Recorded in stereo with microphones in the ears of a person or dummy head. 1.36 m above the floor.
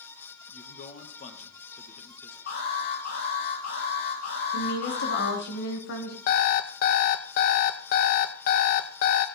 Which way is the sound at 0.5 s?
45° left (ahead or behind).